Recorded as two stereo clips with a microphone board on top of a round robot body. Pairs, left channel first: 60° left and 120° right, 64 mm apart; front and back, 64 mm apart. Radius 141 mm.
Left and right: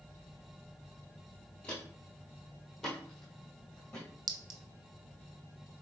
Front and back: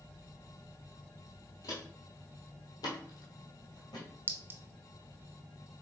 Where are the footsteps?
15° right, 0.6 m; by 4.0 s 20° right, 1.9 m.